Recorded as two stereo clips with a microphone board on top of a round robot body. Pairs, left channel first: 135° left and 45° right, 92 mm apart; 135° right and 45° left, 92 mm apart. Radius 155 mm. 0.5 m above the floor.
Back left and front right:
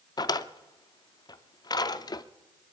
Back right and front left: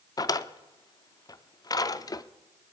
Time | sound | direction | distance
0.2 | a drawer | straight behind | 0.6 m